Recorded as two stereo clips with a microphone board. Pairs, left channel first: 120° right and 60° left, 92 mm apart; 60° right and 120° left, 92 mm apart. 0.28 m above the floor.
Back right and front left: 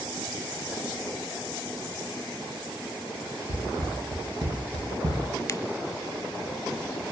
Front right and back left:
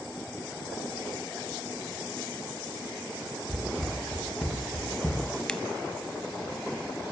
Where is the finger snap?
135° right, 1.0 m.